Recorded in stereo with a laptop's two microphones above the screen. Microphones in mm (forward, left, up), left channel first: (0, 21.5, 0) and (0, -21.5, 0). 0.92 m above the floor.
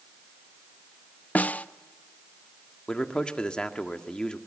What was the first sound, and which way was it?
A snare drum, 40° left (ahead or behind).